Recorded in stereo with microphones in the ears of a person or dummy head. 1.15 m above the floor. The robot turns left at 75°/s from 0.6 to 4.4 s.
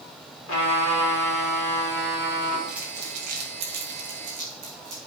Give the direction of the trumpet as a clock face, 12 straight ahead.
8 o'clock.